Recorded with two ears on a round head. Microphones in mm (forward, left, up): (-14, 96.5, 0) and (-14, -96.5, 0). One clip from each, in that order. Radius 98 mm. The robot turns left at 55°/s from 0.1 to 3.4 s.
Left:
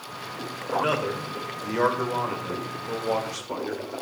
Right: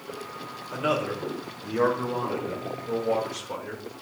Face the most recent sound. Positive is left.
turn(degrees=35)